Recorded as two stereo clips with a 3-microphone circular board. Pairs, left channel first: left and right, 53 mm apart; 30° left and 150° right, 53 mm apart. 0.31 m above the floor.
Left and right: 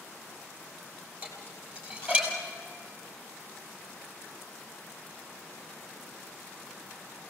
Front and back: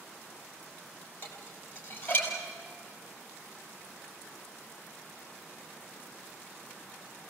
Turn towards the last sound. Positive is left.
turn(degrees=-30)